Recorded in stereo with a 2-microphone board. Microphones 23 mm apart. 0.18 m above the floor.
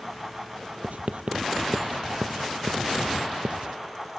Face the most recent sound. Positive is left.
turn(degrees=-75)  # may be behind; listen again after turning